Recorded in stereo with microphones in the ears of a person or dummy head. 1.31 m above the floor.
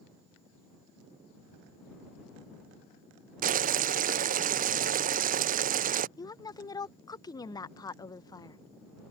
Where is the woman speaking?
20° left (ahead or behind).